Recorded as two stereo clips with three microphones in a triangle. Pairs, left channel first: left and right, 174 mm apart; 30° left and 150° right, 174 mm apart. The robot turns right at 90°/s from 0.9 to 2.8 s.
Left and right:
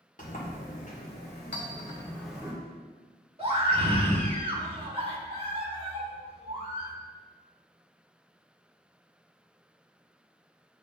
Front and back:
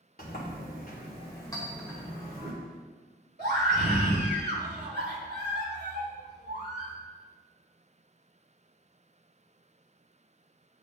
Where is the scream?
145° right, 2 m.